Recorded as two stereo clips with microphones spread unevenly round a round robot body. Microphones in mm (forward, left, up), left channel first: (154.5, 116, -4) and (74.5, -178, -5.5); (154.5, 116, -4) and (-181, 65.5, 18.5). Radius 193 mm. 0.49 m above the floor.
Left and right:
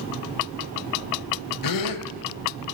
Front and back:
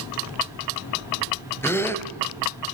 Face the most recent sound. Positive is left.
turn(degrees=90)